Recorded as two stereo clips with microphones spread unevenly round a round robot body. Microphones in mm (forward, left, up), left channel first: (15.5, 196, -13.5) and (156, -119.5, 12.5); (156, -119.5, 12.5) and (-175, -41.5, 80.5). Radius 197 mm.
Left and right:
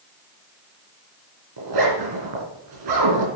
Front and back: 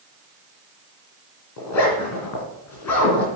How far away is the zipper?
About 3.5 m.